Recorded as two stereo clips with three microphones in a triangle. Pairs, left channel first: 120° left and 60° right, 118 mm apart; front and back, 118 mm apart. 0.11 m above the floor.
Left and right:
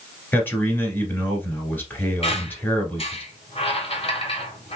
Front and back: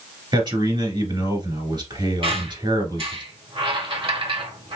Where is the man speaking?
Straight behind, 1.5 m.